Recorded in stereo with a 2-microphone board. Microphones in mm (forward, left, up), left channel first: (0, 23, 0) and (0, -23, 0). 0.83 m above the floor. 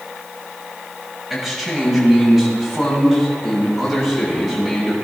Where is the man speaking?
10° right (ahead or behind), 5.5 m; by 5.0 s 5° right (ahead or behind), 8.5 m.